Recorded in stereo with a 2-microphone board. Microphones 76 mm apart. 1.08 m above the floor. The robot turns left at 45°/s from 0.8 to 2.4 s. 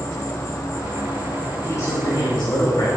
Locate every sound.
0.0 s an insect: 125° left, 3 m; by 3.0 s 55° left, 3 m
1.6 s a man speaking: 145° left, 4.5 m; by 2.9 s 115° left, 4.5 m